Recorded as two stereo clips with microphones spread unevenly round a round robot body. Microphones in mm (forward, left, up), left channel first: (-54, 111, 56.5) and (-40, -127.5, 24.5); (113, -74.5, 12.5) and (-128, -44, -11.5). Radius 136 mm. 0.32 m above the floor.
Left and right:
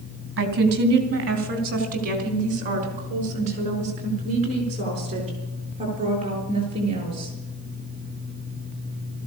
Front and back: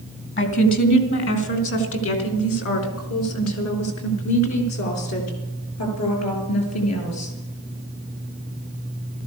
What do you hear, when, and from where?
0.4 s a woman speaking: 50° right, 3 m; by 7.3 s 15° right, 7 m